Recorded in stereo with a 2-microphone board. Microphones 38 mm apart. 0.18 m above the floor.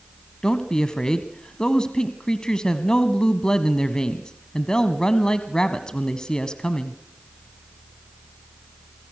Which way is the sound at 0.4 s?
25° left (ahead or behind).